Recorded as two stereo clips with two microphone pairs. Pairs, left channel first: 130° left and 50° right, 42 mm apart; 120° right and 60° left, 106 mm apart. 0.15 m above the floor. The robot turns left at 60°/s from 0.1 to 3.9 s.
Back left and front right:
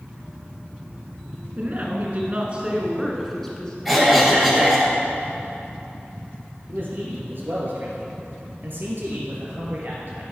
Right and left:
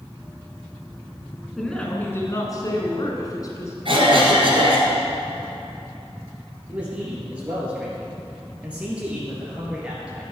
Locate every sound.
1.6 s a woman speaking: 35° right, 1.5 m; by 3.8 s 165° right, 1.5 m
3.9 s a cough: 35° left, 2.5 m
6.7 s a man speaking: 20° right, 2.5 m